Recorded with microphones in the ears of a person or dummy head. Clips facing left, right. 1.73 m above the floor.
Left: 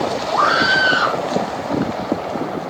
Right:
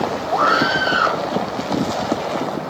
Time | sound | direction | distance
0.3 | a scream | 70° left (ahead or behind) | 8 m